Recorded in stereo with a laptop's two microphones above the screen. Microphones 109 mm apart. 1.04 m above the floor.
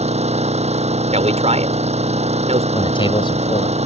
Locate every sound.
0.0 s an engine running: 75° right (ahead or behind)
1.1 s a man speaking: 80° right
2.7 s a man speaking: 50° left (ahead or behind)